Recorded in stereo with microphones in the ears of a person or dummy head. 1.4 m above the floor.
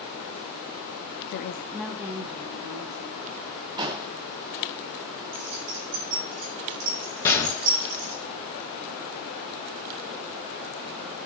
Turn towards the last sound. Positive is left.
turn(degrees=15)  # may be behind; listen again after turning